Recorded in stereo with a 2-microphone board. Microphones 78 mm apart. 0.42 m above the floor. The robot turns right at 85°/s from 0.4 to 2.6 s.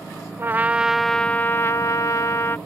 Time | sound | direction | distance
0.4 | a trumpet | 50° right | ?